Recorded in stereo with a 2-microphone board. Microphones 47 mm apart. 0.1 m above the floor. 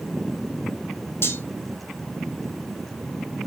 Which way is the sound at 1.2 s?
60° left (ahead or behind).